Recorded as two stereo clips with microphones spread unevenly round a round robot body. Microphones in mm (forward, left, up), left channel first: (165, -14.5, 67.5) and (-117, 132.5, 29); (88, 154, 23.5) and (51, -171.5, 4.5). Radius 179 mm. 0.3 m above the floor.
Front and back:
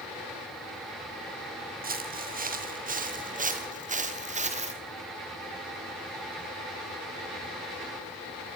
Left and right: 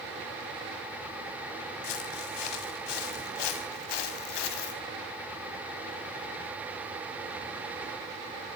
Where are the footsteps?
90° left, 5 m; by 4.8 s 80° left, 3 m.